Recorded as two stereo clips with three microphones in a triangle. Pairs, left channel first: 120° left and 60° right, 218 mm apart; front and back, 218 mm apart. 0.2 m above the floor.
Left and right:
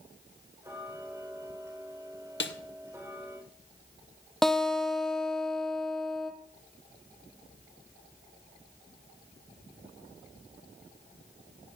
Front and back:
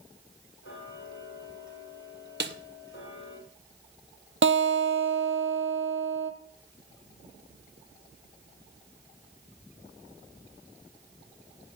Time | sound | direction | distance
0.6 | ticking | 15° left | 7 m
2.4 | a snare drum | 145° left | 0.9 m
4.4 | a guitar | 150° right | 1.1 m